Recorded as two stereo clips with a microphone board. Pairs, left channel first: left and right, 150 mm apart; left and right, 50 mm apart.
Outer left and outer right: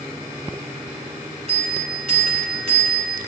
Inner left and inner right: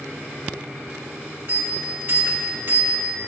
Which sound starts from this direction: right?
A bell, at 1.5 s.